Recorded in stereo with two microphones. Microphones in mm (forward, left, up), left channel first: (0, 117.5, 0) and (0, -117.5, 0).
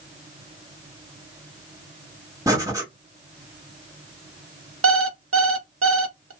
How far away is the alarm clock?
About 0.6 m.